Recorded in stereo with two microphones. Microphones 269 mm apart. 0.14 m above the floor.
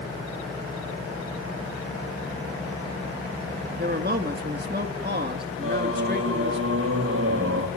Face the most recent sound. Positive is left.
turn(degrees=-55)  # may be behind; listen again after turning